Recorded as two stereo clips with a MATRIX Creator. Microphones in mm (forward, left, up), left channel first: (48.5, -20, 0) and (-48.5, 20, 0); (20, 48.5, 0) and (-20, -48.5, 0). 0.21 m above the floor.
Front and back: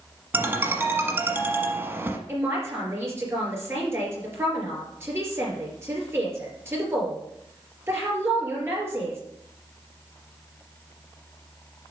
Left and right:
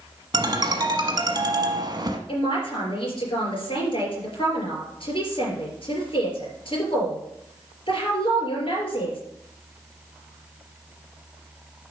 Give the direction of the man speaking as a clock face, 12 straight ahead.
9 o'clock.